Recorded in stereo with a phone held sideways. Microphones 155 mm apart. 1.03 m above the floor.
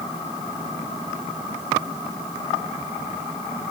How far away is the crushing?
No crushing in this recording.